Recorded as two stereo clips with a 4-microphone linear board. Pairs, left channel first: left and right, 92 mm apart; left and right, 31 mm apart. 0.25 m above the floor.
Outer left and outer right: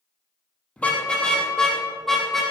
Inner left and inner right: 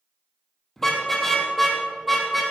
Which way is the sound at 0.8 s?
15° left (ahead or behind).